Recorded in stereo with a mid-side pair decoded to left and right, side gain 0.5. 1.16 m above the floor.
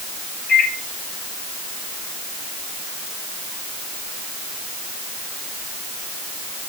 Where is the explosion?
I don't hear an explosion.